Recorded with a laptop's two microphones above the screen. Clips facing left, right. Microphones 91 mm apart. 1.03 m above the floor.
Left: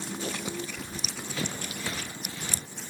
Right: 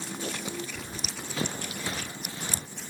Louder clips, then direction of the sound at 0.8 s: Even; 30° right (ahead or behind).